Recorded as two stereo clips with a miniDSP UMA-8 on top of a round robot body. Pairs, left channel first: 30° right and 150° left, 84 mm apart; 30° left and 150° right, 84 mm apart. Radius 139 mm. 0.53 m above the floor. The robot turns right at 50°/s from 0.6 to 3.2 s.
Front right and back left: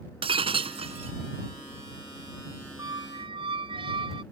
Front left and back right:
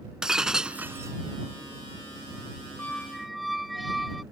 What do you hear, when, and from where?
0.2 s breaking glass: 125° left; by 1.1 s 155° left
2.8 s a squeak: 100° left; by 4.2 s 120° left